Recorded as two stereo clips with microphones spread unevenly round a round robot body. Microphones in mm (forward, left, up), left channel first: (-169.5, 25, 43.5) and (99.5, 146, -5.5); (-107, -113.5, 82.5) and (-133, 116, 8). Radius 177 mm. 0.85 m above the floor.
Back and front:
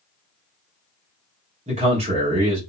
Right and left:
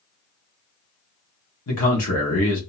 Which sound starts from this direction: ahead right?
A man speaking, at 1.7 s.